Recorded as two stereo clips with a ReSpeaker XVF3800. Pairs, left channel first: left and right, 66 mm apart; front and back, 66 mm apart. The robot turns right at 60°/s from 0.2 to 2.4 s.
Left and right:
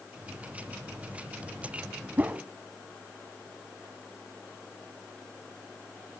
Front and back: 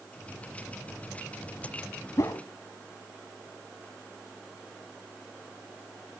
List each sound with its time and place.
2.2 s a whoosh: 30° right, 1.1 m; by 2.4 s 15° right, 1.1 m